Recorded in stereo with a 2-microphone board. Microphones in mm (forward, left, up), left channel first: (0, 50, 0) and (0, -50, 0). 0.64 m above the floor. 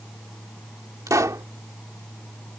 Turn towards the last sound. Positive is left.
turn(degrees=-35)  # may be behind; listen again after turning